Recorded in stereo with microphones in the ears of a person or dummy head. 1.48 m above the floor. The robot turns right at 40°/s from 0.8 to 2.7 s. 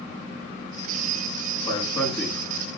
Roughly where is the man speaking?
Behind left.